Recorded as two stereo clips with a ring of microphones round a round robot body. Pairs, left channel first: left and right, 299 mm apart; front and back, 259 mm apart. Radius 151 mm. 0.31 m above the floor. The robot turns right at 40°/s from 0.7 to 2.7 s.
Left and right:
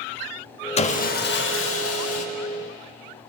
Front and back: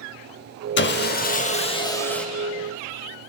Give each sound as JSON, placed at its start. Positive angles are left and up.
{"t": 0.8, "sound": "sawing", "azimuth_deg": 25, "distance_m": 0.6}